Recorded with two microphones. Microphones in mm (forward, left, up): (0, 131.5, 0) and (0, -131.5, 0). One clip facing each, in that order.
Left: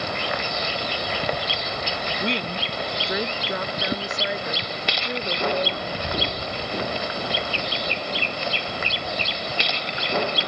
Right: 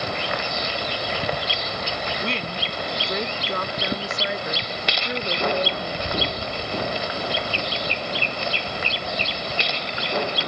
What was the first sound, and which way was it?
A woman speaking, 20° left (ahead or behind).